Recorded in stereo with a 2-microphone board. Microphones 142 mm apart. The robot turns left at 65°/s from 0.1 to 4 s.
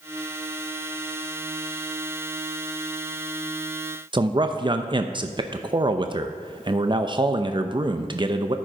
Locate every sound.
4.1 s a man speaking: 35° right (ahead or behind), 0.6 m